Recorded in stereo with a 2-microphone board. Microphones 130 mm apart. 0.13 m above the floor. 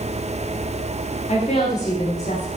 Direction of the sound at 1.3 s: 60° left (ahead or behind).